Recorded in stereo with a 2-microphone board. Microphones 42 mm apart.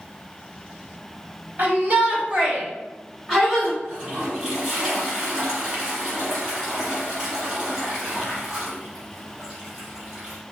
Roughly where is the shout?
Right.